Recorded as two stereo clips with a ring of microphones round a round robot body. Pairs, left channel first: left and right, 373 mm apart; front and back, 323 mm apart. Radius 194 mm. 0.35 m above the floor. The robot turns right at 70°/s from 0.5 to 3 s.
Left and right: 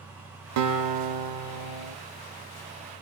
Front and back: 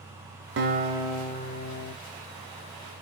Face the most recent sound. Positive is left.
turn(degrees=40)